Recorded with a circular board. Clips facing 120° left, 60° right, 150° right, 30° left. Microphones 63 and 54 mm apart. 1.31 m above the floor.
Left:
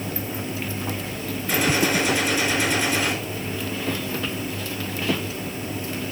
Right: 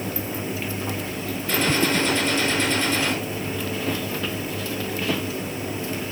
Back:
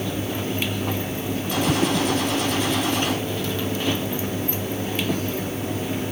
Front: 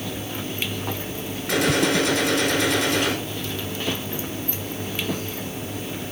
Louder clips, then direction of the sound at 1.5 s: Even, front 2 dB; 40° left.